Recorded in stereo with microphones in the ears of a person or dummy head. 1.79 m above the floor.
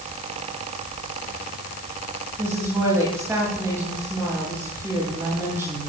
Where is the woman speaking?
10° right (ahead or behind), 9.5 m.